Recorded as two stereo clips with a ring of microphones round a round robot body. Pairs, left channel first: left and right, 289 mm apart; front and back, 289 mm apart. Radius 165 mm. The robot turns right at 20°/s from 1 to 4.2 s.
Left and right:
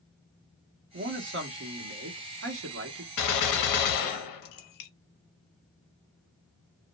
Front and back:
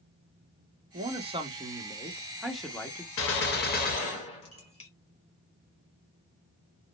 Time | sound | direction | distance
0.9 | a man speaking | 120° right | 1.1 m
3.2 | a gunshot | 50° left | 0.6 m